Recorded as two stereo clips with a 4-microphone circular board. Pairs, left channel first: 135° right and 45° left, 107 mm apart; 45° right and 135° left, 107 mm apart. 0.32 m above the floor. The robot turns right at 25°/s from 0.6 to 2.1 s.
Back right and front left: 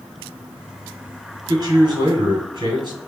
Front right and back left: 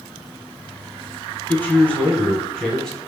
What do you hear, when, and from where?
1.5 s a man speaking: 20° left, 1.2 m; by 3.0 s 35° left, 1.2 m